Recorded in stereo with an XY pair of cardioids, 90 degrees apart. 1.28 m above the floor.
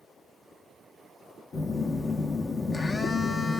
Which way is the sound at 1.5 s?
45° left.